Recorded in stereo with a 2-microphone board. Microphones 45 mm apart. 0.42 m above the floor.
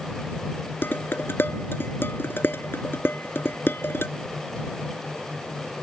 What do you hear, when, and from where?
0.8 s dishes clattering: 55° left (ahead or behind)